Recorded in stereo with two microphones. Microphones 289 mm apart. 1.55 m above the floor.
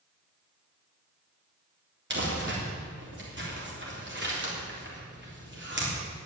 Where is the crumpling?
40° right (ahead or behind), 3.5 m.